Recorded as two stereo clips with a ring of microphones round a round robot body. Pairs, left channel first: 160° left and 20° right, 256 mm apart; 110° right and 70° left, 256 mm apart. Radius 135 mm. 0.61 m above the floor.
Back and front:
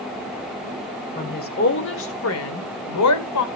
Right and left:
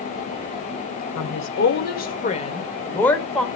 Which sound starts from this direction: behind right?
A woman speaking, at 1.1 s.